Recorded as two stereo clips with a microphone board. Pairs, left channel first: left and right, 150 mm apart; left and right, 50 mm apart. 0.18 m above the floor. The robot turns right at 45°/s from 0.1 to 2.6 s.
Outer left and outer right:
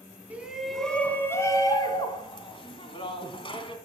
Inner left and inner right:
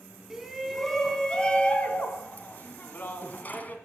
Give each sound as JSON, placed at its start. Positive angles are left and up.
{"t": 0.3, "sound": "a shout", "azimuth_deg": -15, "distance_m": 1.3}